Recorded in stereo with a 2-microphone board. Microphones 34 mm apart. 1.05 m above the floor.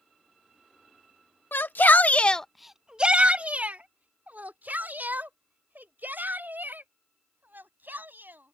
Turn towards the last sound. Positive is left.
turn(degrees=-65)  # may be behind; listen again after turning